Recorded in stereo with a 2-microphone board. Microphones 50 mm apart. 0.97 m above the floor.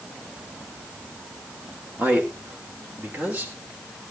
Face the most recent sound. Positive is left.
turn(degrees=-30)  # may be behind; listen again after turning